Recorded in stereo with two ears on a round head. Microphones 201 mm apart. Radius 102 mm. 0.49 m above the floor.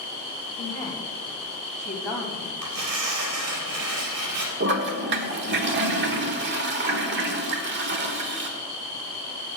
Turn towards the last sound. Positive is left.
turn(degrees=-50)  # may be behind; listen again after turning